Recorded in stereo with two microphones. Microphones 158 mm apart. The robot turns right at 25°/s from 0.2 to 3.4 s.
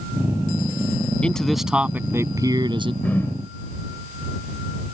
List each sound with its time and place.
1.2 s a man speaking: 175° left; by 2.9 s 145° right
3.0 s a whoosh: 10° left (ahead or behind); by 3.4 s 20° left (ahead or behind)